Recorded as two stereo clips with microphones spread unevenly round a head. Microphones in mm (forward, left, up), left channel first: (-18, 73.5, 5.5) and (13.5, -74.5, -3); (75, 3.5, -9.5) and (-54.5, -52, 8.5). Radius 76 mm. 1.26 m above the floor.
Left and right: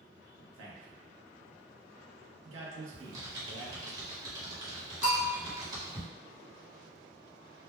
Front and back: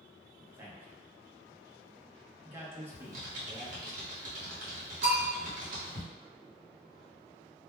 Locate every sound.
0.4 s a man speaking: 80° right, 0.9 m
2.9 s typing on a keyboard: 145° right, 1.0 m
5.0 s a bell: 145° left, 0.9 m